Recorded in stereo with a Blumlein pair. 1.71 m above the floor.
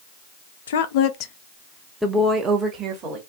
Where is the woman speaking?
60° left, 0.7 m; by 3.2 s 30° right, 1.2 m.